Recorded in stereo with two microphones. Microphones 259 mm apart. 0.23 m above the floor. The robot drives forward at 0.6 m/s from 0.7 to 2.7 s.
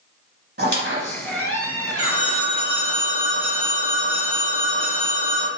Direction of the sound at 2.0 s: 25° right (ahead or behind).